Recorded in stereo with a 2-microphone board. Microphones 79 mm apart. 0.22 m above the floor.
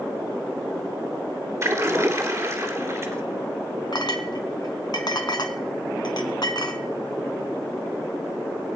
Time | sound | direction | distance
1.6 | a splash | 40° right (ahead or behind) | 1.9 m
3.9 | a clink | 60° left (ahead or behind) | 1.5 m